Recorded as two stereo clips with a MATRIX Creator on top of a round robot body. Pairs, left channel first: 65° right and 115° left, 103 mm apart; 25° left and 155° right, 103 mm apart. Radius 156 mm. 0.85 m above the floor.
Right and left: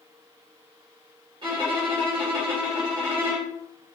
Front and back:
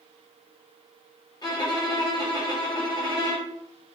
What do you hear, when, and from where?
1.4 s a violin: 75° left, 1.2 m